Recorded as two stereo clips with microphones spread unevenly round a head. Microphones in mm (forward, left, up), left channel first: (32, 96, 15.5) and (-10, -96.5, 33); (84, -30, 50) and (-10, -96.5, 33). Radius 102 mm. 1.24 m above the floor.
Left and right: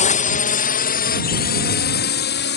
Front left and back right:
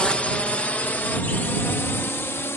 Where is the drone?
120° left; by 2.6 s 110° left.